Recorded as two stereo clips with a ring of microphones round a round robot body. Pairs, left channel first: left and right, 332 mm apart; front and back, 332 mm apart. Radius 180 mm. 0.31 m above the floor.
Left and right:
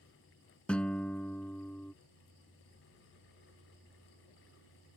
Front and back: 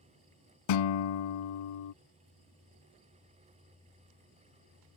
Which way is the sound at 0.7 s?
5° left.